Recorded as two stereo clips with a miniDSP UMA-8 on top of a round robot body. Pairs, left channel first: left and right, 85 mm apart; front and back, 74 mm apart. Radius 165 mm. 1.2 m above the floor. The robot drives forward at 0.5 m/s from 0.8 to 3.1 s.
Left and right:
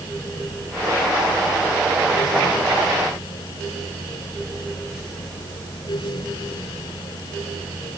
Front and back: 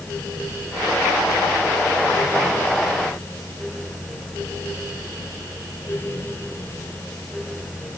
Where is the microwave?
No microwave in this recording.